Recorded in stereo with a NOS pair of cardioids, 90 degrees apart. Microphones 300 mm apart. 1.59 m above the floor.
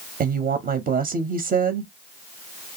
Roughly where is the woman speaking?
Ahead right.